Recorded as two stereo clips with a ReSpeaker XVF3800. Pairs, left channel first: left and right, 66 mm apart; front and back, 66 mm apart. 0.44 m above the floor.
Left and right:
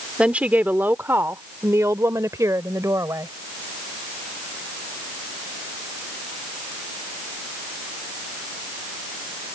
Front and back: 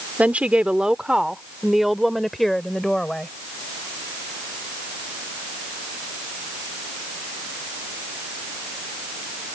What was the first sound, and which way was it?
A woman speaking, 140° right.